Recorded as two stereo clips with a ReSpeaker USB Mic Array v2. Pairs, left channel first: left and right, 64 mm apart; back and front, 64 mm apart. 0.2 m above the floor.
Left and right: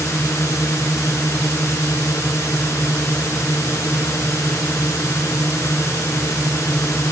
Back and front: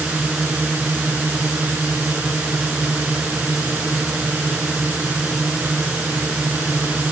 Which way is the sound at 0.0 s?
65° left.